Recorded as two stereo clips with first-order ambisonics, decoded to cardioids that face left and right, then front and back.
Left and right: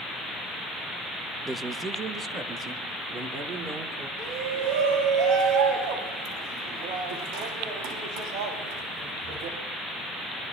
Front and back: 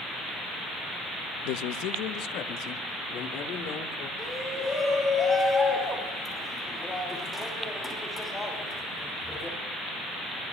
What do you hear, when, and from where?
1.4 s a man speaking: 5° right, 0.6 m; by 4.1 s 35° right, 3 m
4.2 s a shout: 85° right, 3 m